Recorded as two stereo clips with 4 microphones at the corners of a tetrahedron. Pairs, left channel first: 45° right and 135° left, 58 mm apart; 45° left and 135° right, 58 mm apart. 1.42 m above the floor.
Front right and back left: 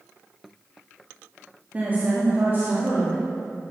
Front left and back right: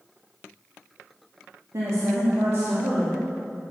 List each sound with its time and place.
1.7 s a woman speaking: 160° right, 2.5 m; by 3.2 s 175° left, 3 m